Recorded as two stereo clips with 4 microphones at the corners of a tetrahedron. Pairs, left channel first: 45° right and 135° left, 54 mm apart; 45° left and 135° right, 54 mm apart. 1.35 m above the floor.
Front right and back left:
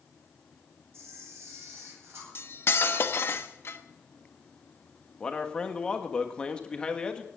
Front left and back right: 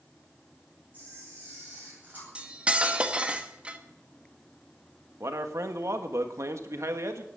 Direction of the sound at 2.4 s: 75° right.